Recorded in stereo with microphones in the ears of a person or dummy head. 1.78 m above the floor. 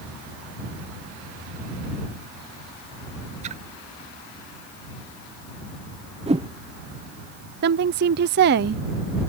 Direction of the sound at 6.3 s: 25° right (ahead or behind).